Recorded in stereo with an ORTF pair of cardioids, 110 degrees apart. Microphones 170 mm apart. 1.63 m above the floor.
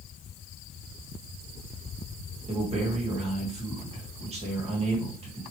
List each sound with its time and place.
2.5 s a man speaking: 40° right, 1.9 m